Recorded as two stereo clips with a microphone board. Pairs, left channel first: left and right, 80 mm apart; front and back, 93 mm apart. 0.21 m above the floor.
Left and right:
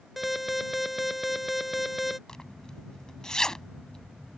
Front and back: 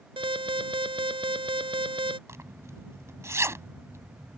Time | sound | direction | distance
0.2 | an alarm | straight behind | ?
2.3 | a zipper | 165° left | ?